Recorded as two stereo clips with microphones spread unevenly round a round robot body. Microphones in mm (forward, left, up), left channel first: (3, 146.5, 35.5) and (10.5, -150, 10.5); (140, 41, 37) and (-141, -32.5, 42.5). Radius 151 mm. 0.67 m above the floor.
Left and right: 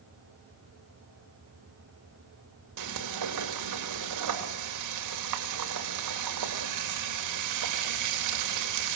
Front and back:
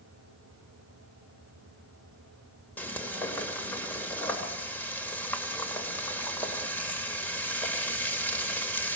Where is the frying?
70° right, 2.5 m.